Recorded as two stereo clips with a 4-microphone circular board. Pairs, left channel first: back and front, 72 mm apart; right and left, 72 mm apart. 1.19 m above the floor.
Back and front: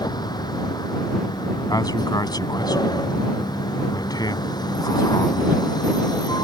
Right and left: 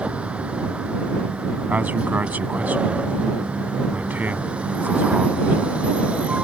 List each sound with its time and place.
0.0 s a vehicle: 165° left
1.7 s a man speaking: 160° left